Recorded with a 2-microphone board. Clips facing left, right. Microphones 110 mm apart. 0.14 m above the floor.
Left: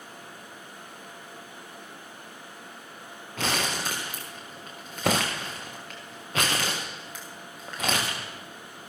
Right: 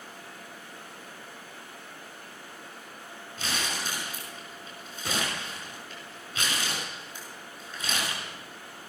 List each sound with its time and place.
3.4 s crumpling: 85° left, 4 m